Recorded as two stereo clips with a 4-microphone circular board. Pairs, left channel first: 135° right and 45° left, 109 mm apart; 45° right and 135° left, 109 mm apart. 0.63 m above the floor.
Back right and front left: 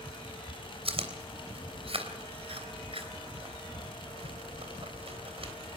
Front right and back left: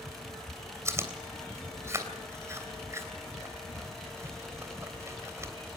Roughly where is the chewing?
Left.